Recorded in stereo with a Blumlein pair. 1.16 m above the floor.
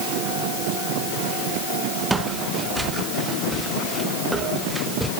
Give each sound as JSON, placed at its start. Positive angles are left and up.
{"t": 2.1, "sound": "footsteps", "azimuth_deg": -10}